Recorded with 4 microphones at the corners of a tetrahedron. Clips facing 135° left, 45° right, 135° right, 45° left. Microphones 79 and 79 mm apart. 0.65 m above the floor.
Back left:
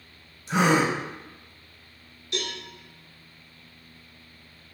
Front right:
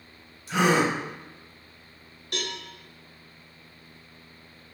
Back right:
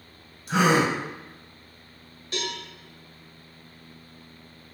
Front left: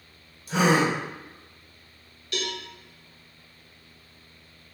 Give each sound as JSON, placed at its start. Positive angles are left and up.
{"t": 0.5, "sound": "a gasp", "azimuth_deg": -155, "distance_m": 1.2}
{"t": 2.3, "sound": "a cowbell", "azimuth_deg": -75, "distance_m": 1.2}